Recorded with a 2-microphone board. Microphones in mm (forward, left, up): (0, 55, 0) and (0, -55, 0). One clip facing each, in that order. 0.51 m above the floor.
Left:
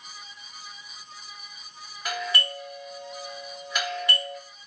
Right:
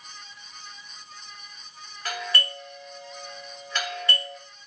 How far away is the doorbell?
About 1.9 m.